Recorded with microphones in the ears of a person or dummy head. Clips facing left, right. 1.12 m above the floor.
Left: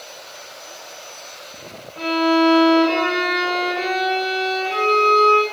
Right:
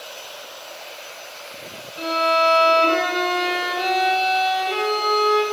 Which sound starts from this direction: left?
A violin, at 2.0 s.